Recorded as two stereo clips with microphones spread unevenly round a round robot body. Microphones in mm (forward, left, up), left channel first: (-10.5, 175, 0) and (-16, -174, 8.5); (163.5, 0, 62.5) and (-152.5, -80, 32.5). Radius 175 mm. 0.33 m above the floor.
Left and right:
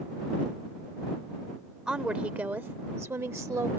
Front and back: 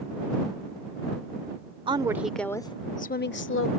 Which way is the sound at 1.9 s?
Straight behind.